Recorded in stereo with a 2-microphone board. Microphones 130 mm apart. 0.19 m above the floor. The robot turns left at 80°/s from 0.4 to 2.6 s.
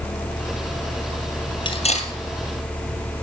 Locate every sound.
1.6 s cutlery clinking: 40° left (ahead or behind), 2.5 m; by 2.1 s 70° left (ahead or behind), 2.5 m